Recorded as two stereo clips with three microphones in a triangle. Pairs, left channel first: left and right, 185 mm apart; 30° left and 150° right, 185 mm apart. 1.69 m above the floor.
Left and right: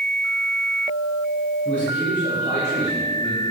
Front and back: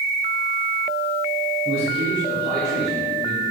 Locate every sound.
1.6 s a man speaking: 170° left, 3 m; by 3.4 s 175° left, 6 m